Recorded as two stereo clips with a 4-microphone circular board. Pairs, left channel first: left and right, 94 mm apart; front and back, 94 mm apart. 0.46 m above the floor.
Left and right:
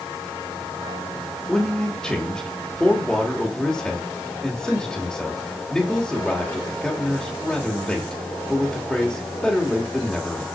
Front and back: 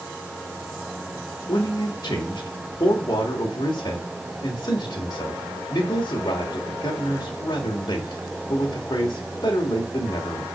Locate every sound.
1.5 s a man speaking: 10° left, 1.6 m